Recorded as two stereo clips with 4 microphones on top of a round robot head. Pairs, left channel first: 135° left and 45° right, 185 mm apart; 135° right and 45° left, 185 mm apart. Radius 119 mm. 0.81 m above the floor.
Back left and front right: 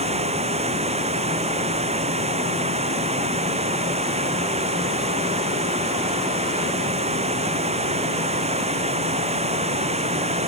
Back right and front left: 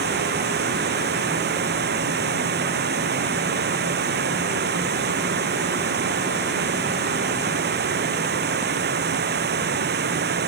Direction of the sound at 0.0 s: 10° left.